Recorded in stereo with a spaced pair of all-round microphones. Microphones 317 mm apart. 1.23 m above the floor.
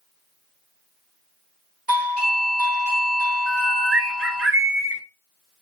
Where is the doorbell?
25° left (ahead or behind), 1.8 m.